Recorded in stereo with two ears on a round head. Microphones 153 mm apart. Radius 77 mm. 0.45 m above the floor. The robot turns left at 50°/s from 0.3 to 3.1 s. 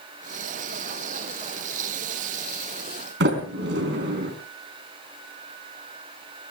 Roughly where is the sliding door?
Right.